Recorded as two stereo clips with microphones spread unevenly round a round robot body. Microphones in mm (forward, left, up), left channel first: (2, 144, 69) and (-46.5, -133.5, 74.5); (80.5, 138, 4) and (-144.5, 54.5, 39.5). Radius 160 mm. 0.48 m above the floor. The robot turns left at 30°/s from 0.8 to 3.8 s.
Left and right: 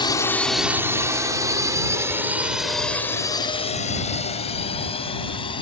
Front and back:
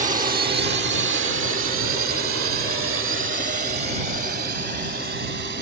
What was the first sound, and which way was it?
A drone, 145° left.